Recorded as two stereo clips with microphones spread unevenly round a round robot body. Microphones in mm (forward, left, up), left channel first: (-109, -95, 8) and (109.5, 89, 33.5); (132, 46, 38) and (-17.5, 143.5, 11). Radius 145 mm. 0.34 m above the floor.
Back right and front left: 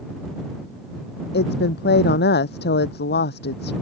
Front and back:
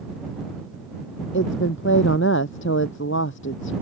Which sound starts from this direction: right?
A woman speaking, at 1.3 s.